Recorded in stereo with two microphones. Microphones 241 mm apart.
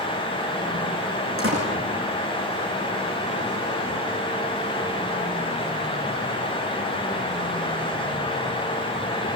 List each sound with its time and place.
1.4 s a door slam: 65° right (ahead or behind), 9.5 m